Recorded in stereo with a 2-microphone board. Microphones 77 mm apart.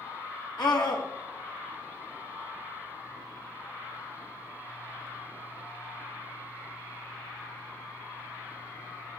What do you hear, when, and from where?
0.6 s a scream: 65° left (ahead or behind), 3 m